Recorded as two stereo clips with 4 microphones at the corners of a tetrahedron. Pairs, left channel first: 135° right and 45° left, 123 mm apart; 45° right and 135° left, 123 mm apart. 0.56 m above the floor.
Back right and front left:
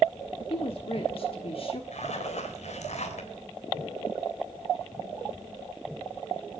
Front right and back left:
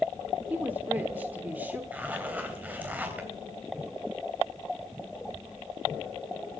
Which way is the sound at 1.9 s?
150° right.